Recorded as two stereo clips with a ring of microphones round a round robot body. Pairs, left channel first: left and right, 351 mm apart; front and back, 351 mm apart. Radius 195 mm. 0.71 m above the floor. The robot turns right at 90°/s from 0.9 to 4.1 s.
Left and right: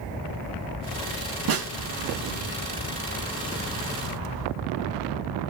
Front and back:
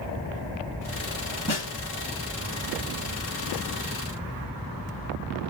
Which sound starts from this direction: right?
A snare drum, at 1.5 s.